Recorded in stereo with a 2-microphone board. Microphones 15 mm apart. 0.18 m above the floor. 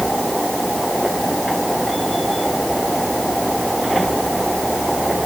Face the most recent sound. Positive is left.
No sound to turn to.